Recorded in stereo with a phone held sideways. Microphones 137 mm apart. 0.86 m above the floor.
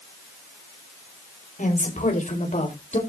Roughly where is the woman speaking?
Left.